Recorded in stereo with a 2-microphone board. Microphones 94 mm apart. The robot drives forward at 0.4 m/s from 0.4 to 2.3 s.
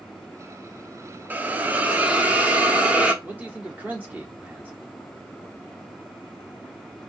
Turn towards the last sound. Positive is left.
turn(degrees=-15)  # may be behind; listen again after turning